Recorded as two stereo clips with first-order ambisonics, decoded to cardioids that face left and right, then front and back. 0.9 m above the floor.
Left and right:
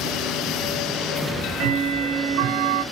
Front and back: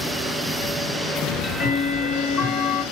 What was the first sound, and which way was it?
Ticking, 50° right.